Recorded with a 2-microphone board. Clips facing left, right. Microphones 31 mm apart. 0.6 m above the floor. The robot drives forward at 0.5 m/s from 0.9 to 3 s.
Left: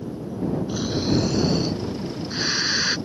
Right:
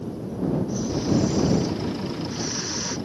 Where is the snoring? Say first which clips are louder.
Left 1 dB; 80° left; by 3.0 s 75° left (ahead or behind).